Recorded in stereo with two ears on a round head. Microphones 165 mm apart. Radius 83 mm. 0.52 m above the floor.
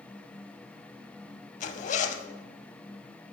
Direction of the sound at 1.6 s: 40° left (ahead or behind).